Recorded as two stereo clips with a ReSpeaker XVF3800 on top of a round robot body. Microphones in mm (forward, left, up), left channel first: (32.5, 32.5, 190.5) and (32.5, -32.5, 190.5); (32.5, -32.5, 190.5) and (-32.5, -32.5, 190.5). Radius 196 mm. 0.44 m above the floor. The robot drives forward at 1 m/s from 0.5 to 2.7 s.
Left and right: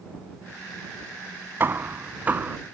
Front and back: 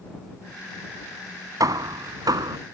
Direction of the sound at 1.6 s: 150° right.